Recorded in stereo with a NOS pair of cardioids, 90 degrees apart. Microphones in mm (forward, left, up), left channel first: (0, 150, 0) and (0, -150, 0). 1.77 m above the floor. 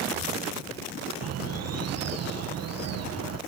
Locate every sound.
1.2 s a bird: 60° right